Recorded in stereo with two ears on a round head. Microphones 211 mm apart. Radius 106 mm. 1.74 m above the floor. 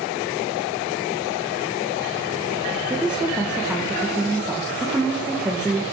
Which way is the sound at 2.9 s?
5° right (ahead or behind).